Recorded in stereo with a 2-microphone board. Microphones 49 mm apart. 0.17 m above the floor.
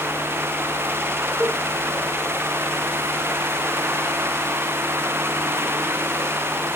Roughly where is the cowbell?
Right.